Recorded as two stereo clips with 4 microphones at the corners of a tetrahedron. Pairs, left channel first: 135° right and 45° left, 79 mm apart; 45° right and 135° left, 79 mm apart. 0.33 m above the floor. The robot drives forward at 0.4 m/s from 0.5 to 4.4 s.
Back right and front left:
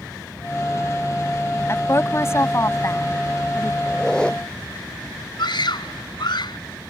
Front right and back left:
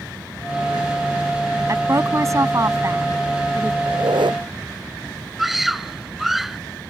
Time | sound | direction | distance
1.7 | a woman speaking | 175° left | ?
3.9 | a squeak | 145° left | ?
5.4 | a scream | 140° right | ?